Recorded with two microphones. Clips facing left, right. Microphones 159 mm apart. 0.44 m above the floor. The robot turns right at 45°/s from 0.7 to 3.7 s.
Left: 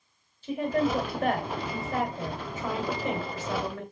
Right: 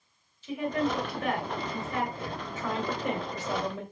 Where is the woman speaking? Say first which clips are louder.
Left 3 dB; 75° left, 1.4 m; by 3.8 s 150° right, 1.4 m.